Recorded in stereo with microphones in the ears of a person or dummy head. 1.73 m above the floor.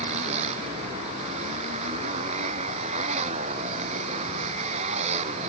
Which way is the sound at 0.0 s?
35° right (ahead or behind).